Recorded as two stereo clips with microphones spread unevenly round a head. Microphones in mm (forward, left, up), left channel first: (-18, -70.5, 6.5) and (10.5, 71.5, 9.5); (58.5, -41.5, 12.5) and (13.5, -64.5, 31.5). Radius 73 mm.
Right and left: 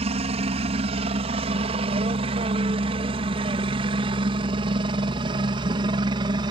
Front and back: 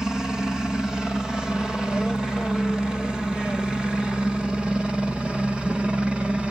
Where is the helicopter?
110° left; by 6.5 s 120° left.